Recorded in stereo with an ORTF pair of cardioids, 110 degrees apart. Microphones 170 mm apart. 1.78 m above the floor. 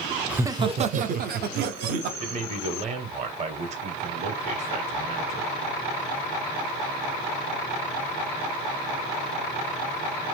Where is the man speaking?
40° right, 0.9 m.